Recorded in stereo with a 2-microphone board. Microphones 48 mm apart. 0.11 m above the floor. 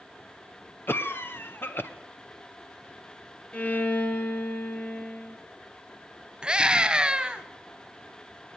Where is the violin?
30° left (ahead or behind), 2.5 m.